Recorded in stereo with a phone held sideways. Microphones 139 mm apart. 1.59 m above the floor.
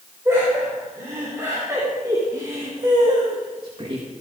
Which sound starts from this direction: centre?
Laughter, at 0.2 s.